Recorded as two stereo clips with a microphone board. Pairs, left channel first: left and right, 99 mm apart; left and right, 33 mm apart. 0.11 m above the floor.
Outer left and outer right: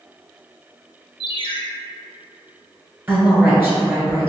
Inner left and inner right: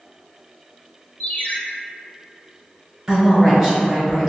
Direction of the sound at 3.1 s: 20° right (ahead or behind).